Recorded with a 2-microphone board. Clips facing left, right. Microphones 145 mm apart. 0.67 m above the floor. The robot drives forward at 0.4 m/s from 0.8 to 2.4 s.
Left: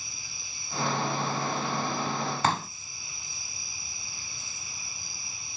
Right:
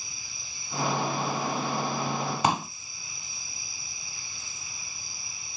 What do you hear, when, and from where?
2.4 s a pop: 15° right (ahead or behind), 0.7 m